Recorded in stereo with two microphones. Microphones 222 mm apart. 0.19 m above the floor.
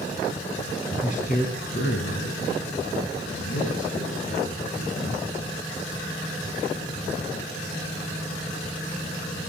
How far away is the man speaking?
About 1.5 m.